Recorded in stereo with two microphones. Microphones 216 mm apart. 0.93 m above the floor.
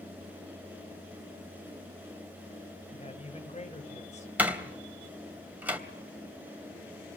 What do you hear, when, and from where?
2.9 s a man speaking: 30° left (ahead or behind), 4 m; by 4.3 s 35° left (ahead or behind), 3 m
4.4 s a door slam: 10° right (ahead or behind), 3 m